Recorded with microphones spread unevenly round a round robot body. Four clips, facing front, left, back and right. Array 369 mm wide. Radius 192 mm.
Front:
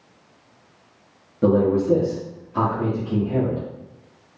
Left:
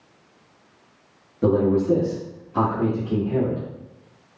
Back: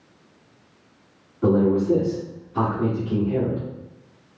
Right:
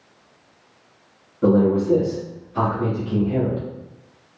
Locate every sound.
1.4 s a man speaking: 30° left, 0.9 m; by 3.7 s 105° left, 1.4 m